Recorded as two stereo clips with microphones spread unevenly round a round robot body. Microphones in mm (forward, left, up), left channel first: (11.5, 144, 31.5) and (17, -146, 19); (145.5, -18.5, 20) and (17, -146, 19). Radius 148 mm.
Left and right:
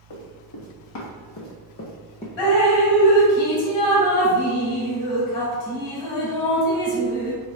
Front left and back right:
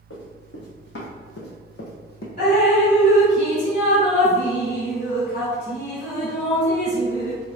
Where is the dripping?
100° left, 1.7 m.